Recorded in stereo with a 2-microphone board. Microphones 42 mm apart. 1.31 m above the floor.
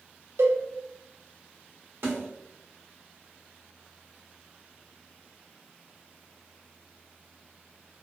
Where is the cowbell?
75° right (ahead or behind), 0.6 m.